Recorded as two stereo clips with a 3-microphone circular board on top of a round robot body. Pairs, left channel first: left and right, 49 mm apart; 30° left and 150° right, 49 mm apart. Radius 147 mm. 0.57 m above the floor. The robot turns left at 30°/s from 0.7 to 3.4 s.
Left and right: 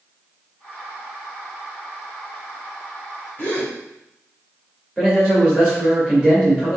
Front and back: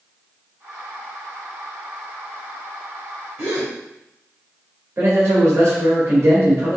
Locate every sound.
3.4 s a gasp: 150° left, 2 m
5.0 s a man speaking: 175° left, 2 m